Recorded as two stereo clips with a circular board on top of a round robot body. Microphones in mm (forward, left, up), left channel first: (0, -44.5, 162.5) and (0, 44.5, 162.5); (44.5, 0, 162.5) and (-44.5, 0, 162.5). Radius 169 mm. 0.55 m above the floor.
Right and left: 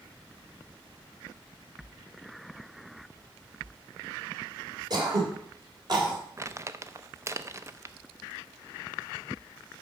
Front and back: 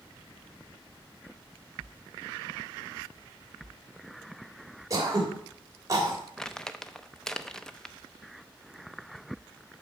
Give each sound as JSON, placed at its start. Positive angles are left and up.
{"t": 4.9, "sound": "throat clearing", "azimuth_deg": 130, "distance_m": 3.0}
{"t": 6.4, "sound": "crumpling", "azimuth_deg": 80, "distance_m": 0.9}